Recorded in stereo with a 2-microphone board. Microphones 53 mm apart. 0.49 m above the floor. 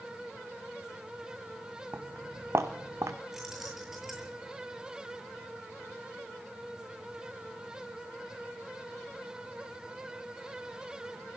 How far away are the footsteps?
About 2.5 m.